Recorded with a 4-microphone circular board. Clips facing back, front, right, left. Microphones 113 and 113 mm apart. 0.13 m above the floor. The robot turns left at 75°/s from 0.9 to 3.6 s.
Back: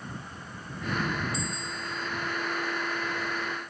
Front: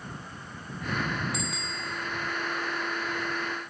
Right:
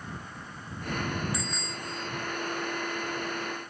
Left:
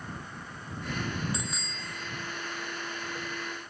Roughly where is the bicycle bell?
Ahead.